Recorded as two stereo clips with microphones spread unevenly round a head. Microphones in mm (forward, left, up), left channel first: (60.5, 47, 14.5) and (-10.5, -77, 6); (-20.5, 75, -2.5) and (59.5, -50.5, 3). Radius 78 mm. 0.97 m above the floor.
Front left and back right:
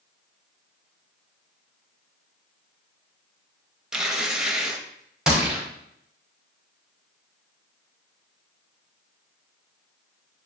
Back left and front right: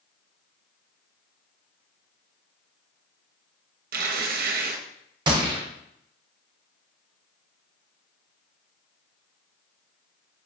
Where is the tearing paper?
35° right, 0.5 m.